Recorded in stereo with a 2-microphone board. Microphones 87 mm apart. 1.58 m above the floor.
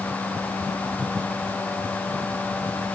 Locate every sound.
Only background noise.